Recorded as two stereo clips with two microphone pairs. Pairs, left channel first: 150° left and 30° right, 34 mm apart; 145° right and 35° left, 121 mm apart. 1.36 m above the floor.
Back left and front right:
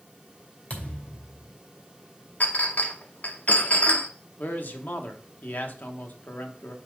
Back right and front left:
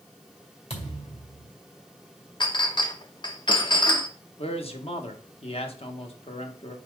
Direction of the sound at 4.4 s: Straight behind.